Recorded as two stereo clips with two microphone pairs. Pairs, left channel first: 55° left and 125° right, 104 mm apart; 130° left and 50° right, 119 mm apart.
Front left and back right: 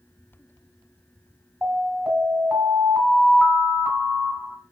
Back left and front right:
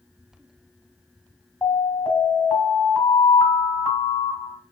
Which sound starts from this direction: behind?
An alarm, at 1.6 s.